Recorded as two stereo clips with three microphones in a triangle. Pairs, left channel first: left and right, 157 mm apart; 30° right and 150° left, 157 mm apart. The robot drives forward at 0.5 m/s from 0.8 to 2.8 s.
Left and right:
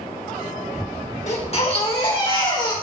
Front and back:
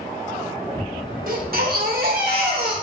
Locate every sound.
1.3 s a baby crying: 130° left, 1.2 m; by 2.7 s 150° left, 1.7 m